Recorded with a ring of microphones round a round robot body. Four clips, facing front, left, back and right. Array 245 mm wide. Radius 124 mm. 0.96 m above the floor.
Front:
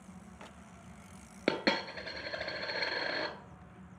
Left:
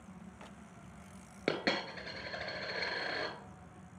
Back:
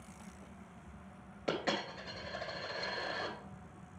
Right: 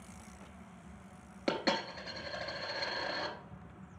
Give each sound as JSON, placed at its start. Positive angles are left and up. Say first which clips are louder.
{"t": 1.5, "sound": "a dropped coin", "louder": "right 1 dB, front 4 dB", "azimuth_deg": 15, "distance_m": 1.3}